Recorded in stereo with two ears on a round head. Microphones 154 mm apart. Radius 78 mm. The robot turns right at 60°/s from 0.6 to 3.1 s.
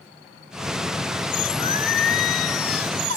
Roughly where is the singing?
Ahead left.